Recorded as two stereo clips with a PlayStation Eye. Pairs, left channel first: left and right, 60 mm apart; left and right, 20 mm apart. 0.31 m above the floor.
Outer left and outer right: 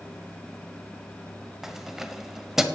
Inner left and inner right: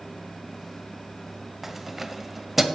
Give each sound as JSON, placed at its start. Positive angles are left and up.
{"t": 1.6, "sound": "keys jangling", "side_deg": -5, "distance_m": 1.0}